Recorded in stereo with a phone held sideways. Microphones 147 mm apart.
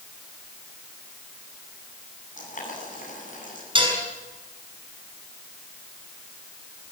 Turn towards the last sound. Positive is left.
turn(degrees=-35)  # may be behind; listen again after turning